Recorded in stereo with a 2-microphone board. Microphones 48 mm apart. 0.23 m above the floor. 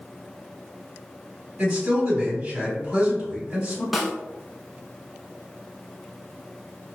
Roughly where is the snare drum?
Centre.